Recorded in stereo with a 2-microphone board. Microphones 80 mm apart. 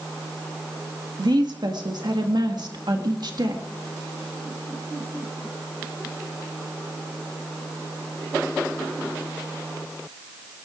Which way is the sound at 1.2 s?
65° right (ahead or behind).